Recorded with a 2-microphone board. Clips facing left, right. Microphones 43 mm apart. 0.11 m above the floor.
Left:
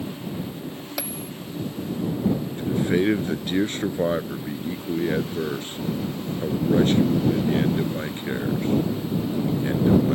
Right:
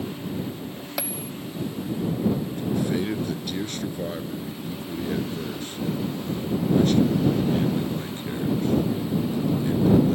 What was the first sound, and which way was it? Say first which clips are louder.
A bell: right 2 dB; 5° right (ahead or behind).